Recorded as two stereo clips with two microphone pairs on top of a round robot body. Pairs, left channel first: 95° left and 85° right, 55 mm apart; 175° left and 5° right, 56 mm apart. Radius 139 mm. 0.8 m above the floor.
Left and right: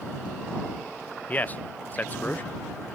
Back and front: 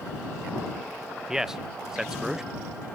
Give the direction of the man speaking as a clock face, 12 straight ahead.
10 o'clock.